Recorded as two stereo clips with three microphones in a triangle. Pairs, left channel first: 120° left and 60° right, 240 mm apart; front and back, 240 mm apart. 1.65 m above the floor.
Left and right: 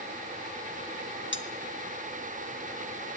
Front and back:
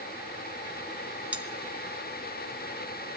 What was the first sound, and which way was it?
Cutlery clinking, 95° left.